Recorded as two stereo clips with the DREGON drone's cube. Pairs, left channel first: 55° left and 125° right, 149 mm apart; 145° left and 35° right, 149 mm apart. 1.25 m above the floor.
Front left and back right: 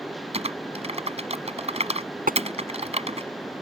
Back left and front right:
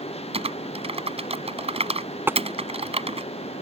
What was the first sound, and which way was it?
Typing on a keyboard, 80° right.